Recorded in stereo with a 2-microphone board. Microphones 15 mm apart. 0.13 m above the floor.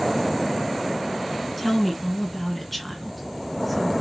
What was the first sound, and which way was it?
A woman speaking, centre (ahead or behind).